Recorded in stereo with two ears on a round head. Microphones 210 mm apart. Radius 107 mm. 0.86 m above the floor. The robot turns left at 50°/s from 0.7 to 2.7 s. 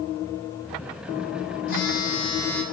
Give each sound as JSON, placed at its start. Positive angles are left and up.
{"t": 1.7, "sound": "a phone buzzing", "azimuth_deg": 50, "distance_m": 2.5}